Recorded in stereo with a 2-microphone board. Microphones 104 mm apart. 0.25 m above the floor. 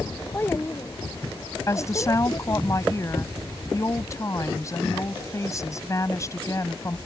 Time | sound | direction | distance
0.3 | a child speaking | 20° left (ahead or behind) | ?
1.7 | a woman speaking | 35° left (ahead or behind) | ?